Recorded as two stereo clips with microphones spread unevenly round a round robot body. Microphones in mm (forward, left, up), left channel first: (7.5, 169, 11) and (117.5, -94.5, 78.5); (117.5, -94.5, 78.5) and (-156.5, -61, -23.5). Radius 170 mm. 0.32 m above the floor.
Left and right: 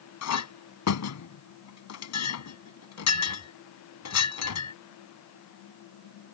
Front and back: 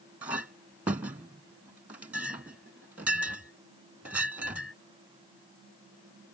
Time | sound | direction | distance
0.2 | a clink | 95° left | ?